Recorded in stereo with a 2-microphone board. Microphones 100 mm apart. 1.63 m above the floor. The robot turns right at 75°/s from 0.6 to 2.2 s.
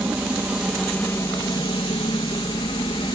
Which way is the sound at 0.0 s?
15° right.